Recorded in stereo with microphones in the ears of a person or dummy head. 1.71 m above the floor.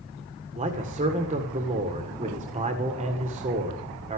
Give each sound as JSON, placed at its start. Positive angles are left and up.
{"t": 0.6, "sound": "a man speaking", "side_deg": -30, "distance_m": 1.6}